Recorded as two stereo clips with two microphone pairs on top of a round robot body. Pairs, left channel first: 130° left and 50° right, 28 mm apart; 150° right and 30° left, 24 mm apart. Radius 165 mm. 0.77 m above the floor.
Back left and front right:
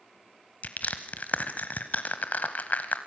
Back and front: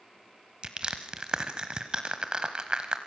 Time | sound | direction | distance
0.6 | crushing | 95° left | 0.8 m